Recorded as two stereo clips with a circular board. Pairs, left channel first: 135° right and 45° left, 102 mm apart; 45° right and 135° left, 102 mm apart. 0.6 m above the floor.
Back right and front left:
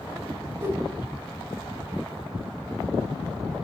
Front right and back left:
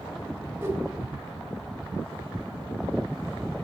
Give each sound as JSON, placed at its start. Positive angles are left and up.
{"t": 0.6, "sound": "a whoosh", "azimuth_deg": 95, "distance_m": 1.2}